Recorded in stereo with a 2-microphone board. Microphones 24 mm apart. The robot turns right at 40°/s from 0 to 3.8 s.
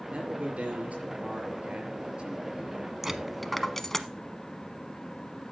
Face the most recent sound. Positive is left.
turn(degrees=15)  # may be behind; listen again after turning